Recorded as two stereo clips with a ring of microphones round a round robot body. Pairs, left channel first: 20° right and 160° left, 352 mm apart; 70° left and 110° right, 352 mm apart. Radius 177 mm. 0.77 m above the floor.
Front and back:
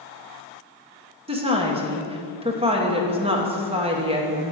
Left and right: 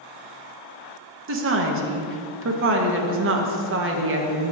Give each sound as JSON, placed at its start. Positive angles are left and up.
{"t": 1.3, "sound": "a woman speaking", "azimuth_deg": -140, "distance_m": 0.8}